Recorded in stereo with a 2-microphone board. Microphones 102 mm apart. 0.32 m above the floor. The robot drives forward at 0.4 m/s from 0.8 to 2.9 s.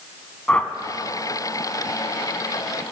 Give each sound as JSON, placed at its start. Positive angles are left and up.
{"t": 0.5, "sound": "a whoosh", "side_deg": 10, "distance_m": 0.7}